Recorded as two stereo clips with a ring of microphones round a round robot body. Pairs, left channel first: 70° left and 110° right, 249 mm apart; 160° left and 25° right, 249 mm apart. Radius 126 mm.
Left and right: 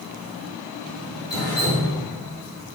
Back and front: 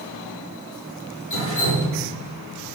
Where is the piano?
No piano in this recording.